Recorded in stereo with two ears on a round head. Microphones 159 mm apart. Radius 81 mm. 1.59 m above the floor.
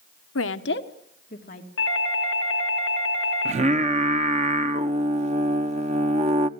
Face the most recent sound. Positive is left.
turn(degrees=-40)  # may be behind; listen again after turning